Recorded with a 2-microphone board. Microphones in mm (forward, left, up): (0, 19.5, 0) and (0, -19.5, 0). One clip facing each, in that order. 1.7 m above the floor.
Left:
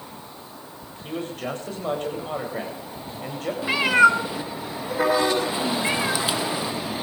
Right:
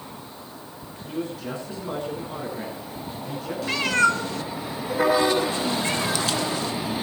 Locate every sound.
1.0 s a man speaking: 60° left (ahead or behind), 9 m
3.6 s a cat meowing: 15° left (ahead or behind), 1.1 m